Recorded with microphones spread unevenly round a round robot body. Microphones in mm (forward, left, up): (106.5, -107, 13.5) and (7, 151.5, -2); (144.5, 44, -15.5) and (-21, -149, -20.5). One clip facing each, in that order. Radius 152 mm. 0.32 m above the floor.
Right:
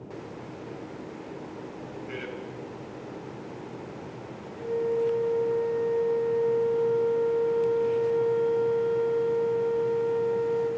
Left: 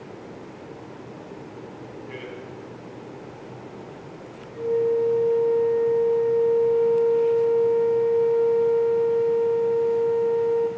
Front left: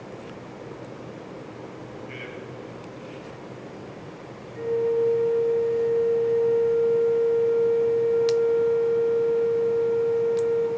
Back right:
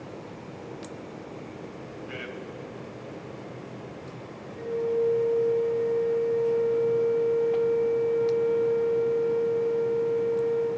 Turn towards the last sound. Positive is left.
turn(degrees=105)